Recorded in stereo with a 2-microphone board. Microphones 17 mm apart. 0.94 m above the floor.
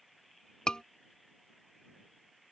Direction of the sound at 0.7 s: 55° left (ahead or behind).